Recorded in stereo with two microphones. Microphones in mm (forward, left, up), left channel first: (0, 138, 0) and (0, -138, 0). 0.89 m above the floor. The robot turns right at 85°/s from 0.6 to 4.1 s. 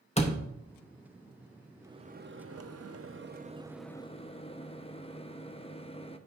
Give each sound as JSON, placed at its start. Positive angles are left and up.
{"t": 0.2, "sound": "a door slam", "side_deg": 25, "distance_m": 0.8}
{"t": 1.8, "sound": "a microwave", "azimuth_deg": -170, "distance_m": 0.5}